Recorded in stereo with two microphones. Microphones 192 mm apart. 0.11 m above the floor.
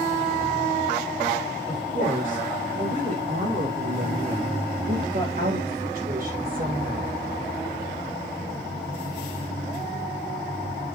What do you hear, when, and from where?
1.7 s a woman speaking: 50° right (ahead or behind), 6 m; by 7.2 s 45° right (ahead or behind), 3 m